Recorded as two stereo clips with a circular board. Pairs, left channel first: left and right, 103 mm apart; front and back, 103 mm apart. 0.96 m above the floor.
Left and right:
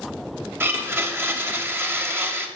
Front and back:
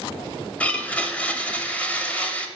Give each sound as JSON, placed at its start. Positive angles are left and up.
{"t": 0.6, "sound": "a blender", "azimuth_deg": -60, "distance_m": 0.8}